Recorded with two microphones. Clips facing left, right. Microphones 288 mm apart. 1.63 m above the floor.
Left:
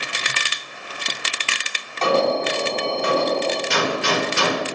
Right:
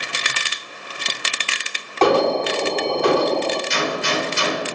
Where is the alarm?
65° right (ahead or behind), 3 m.